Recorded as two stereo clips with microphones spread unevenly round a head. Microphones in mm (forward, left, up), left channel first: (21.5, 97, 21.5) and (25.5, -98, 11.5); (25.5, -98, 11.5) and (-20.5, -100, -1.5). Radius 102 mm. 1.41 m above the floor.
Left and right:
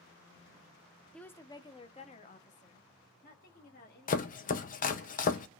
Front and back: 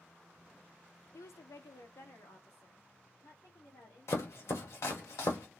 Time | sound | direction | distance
1.1 | a woman speaking | 5° left | 0.6 m
4.1 | chopping | 40° left | 0.8 m